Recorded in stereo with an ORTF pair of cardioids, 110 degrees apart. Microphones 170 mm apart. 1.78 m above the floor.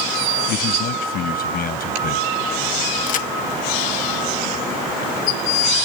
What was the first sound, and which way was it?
A man speaking, 70° left.